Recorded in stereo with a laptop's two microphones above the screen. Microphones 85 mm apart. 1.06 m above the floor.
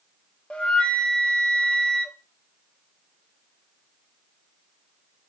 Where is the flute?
10° left (ahead or behind), 1.1 m.